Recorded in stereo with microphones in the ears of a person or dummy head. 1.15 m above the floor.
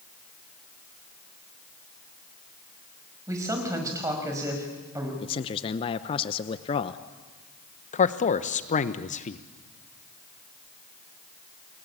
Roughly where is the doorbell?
No doorbell in this recording.